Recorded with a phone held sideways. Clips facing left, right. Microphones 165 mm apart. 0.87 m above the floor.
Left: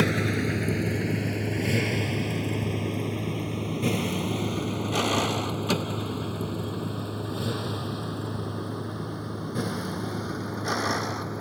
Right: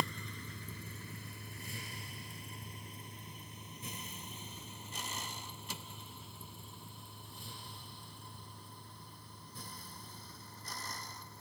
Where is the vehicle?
80° left; by 11.4 s 85° left.